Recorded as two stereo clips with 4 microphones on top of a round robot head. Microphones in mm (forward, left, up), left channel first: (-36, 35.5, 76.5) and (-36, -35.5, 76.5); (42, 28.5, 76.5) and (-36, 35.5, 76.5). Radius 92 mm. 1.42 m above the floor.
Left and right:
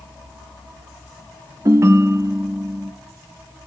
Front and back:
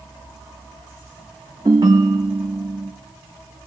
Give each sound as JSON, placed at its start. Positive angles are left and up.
{"t": 1.6, "sound": "a ringtone", "azimuth_deg": -130, "distance_m": 0.6}